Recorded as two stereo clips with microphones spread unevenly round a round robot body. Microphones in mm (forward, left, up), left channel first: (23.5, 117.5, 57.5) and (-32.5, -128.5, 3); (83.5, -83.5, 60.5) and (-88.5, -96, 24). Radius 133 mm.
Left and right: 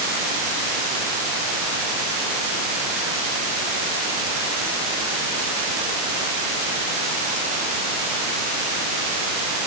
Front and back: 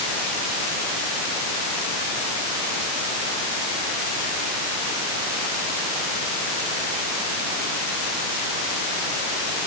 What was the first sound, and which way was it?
Only background noise.